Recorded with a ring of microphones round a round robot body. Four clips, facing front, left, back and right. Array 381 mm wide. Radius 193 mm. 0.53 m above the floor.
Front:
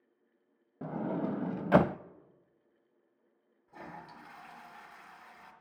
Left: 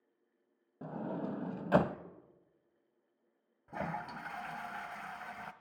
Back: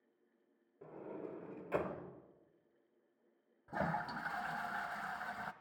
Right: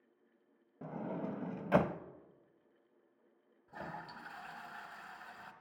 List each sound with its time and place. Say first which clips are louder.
0.8 s a sliding door: left 2 dB, front 13 dB; 5° left, 0.7 m
3.7 s a toilet flushing: left 7 dB, back 9 dB; 145° left, 1.3 m